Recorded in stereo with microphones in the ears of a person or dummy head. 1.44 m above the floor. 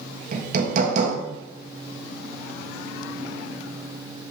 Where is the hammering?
50° right (ahead or behind), 1.8 m.